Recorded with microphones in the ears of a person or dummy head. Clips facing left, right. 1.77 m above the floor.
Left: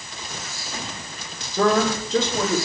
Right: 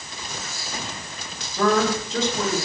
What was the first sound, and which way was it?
A man speaking, 60° left (ahead or behind).